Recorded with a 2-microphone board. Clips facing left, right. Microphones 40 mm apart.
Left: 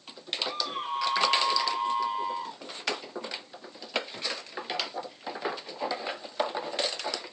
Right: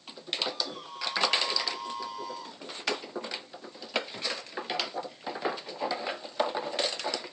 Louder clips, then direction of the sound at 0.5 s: Left 4 dB; 45° left (ahead or behind).